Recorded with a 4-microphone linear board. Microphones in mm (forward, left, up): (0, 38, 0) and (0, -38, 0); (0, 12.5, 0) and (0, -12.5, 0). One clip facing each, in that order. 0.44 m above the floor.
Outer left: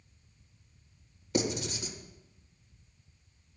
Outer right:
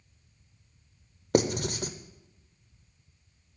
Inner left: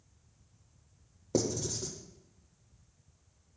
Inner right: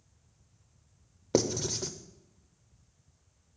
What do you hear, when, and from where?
1.3 s writing: 50° right (ahead or behind), 0.6 m